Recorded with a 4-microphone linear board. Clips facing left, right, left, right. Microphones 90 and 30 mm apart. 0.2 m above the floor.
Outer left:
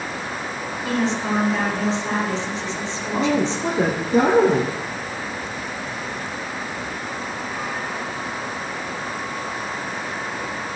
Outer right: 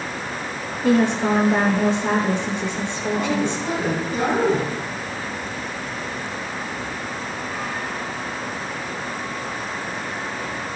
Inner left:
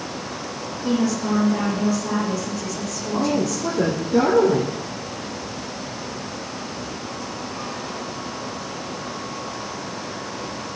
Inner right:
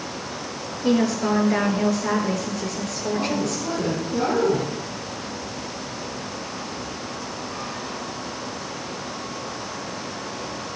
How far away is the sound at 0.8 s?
About 3.5 m.